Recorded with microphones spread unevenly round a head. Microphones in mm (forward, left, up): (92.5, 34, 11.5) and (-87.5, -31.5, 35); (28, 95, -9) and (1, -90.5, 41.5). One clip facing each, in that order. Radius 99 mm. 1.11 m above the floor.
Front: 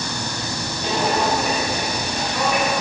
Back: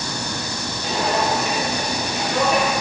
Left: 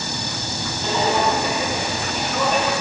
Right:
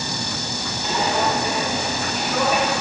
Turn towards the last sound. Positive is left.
turn(degrees=-155)